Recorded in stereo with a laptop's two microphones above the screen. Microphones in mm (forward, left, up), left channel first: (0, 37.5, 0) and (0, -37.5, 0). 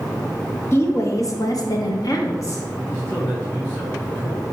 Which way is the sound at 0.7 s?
35° left (ahead or behind).